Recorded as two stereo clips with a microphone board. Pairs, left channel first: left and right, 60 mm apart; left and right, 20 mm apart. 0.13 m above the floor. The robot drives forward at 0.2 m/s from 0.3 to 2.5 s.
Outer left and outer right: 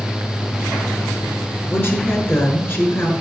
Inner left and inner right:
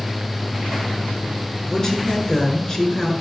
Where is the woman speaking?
40° left (ahead or behind), 1.7 m.